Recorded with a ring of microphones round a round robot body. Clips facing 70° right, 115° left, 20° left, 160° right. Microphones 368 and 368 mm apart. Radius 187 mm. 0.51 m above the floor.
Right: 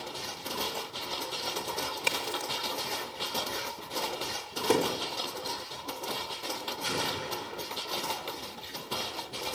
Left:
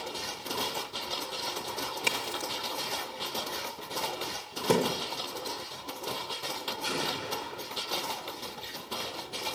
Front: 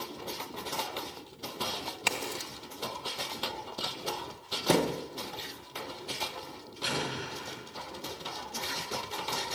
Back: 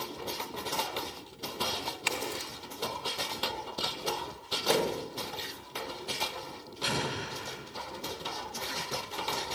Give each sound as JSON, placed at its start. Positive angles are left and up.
{"t": 2.1, "sound": "a crack", "azimuth_deg": 55, "distance_m": 1.4}
{"t": 4.7, "sound": "a thud", "azimuth_deg": 50, "distance_m": 1.2}
{"t": 6.8, "sound": "an explosion", "azimuth_deg": -155, "distance_m": 5.0}